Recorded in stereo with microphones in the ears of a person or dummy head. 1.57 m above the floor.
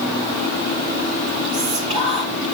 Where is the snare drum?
No snare drum in this recording.